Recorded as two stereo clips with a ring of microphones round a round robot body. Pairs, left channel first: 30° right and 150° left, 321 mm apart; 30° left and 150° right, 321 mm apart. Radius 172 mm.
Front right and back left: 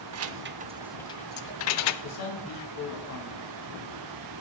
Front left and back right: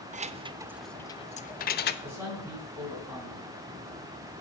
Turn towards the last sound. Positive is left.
turn(degrees=-70)